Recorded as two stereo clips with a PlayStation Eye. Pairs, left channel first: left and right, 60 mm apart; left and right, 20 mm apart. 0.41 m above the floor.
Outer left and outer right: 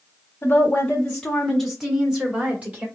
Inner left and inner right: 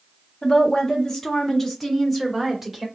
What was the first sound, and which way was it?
A woman speaking, 30° left (ahead or behind).